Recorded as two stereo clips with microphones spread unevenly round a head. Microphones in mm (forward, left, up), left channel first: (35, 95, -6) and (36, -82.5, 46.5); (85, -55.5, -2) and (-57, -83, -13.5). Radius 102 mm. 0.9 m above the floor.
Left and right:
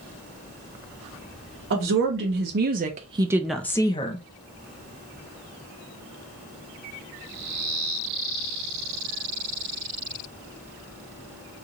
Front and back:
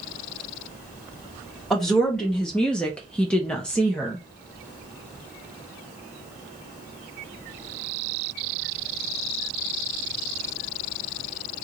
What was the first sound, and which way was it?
A woman speaking, 80° right.